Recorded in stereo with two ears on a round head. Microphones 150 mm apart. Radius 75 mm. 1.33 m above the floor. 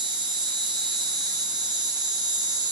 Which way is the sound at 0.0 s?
25° right (ahead or behind).